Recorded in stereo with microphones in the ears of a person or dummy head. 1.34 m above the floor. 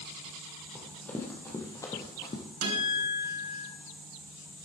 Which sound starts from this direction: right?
A guitar, at 2.6 s.